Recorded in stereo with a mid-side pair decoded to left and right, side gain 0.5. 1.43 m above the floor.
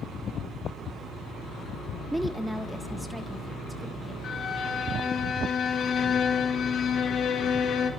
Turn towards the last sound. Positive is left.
turn(degrees=55)